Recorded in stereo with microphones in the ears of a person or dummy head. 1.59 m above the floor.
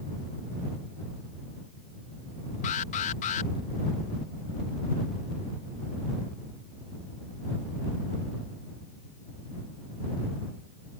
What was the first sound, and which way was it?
An alarm, 45° left (ahead or behind).